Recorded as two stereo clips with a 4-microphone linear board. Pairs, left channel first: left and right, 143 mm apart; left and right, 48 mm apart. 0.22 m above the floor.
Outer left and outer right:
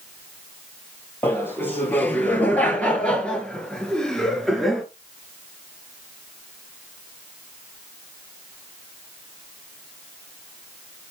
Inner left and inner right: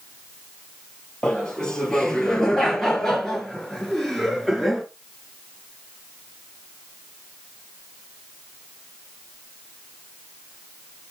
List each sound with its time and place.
1.2 s laughter: 15° left (ahead or behind), 5.5 m; by 4.8 s centre (ahead or behind), 3.5 m